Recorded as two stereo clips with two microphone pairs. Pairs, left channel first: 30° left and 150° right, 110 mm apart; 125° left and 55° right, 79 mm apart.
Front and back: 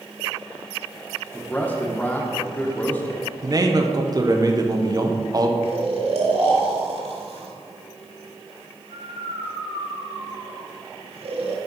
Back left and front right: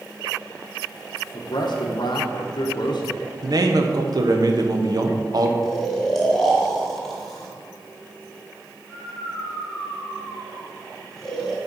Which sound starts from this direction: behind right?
Snoring, at 5.6 s.